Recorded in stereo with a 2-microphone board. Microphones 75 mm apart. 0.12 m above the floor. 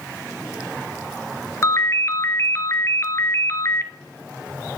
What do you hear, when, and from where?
1.6 s a ringtone: 40° left (ahead or behind), 0.7 m